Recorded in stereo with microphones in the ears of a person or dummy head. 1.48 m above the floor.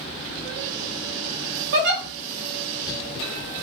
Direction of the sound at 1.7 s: 45° right (ahead or behind).